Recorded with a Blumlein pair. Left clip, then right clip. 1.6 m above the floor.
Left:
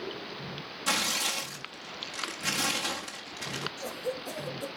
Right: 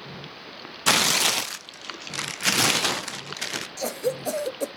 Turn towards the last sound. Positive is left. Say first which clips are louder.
# right 7 dB
turn(degrees=-50)